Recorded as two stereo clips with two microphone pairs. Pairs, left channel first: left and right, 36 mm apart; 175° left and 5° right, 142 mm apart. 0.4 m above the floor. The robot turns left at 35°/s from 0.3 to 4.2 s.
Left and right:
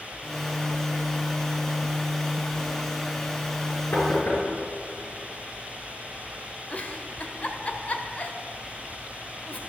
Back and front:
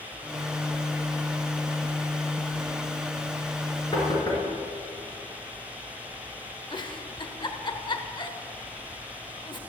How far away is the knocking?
About 4 m.